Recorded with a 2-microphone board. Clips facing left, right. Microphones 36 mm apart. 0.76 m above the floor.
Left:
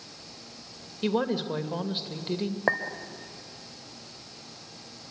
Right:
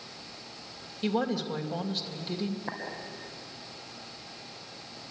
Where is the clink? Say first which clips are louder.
Left 11 dB; 80° left, 1.9 m.